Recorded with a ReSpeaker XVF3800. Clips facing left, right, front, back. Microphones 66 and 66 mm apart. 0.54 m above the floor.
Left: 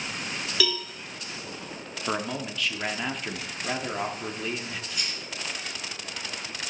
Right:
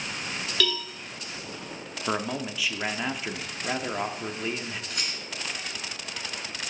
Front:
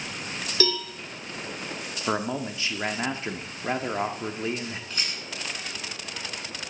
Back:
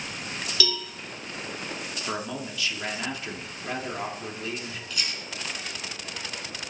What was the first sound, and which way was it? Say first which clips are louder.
A cowbell: even, front 5 dB; 10° left.